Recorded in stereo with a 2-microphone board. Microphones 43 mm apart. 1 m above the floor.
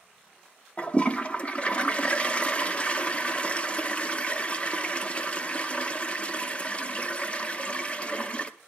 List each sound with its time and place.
0.8 s a toilet flushing: 25° left (ahead or behind), 0.6 m